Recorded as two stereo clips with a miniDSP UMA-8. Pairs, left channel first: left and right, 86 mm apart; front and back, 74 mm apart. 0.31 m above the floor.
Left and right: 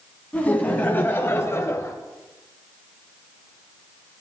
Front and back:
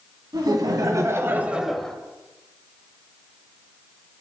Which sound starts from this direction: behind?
Laughter, at 0.3 s.